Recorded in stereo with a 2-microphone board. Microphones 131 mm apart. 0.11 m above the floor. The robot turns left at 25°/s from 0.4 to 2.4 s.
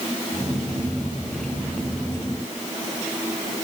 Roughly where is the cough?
No cough in this recording.